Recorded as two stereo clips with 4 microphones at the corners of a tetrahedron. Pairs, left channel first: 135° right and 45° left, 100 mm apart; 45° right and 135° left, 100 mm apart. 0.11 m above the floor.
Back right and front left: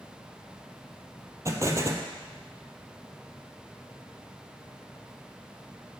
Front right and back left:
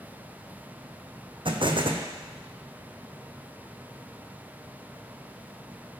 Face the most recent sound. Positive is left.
turn(degrees=105)